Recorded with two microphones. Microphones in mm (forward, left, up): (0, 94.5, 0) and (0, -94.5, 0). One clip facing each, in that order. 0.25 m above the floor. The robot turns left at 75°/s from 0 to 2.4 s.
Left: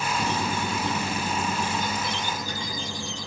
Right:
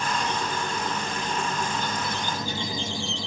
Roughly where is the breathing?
No breathing in this recording.